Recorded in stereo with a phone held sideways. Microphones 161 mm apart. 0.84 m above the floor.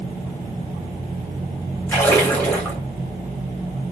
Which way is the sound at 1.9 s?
15° left (ahead or behind).